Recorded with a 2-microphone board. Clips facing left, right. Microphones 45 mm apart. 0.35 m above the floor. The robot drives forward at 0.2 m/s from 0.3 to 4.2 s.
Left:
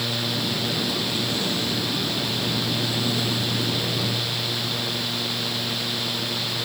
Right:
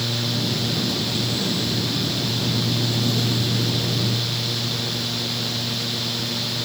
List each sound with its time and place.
Only background noise.